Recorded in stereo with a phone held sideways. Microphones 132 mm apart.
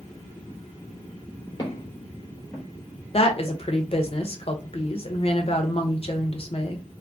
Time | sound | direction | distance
1.6 | footsteps | 40° left (ahead or behind) | 1.2 m
3.1 | a woman speaking | 45° left (ahead or behind) | 0.6 m